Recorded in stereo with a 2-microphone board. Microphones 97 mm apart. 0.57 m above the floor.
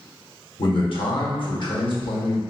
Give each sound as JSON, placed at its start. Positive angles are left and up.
{"t": 0.6, "sound": "a man speaking", "side_deg": 60, "distance_m": 1.4}